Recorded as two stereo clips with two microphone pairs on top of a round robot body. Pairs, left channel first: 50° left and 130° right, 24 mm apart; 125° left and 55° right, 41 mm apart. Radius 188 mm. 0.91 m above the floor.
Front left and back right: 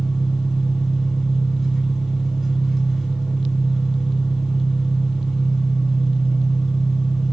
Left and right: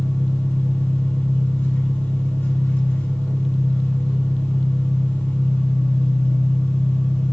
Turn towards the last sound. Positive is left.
turn(degrees=145)